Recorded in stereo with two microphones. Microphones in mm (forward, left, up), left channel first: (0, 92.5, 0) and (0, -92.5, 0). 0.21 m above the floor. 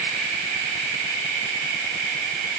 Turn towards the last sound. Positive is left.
No sound to turn to.